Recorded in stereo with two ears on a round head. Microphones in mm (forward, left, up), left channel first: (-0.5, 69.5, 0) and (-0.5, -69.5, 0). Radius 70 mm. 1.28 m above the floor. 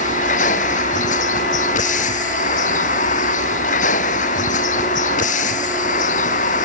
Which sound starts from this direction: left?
A vehicle, at 0.0 s.